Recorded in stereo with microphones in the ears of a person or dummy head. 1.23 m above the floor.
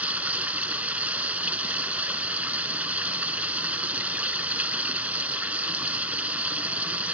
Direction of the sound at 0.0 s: 10° right (ahead or behind).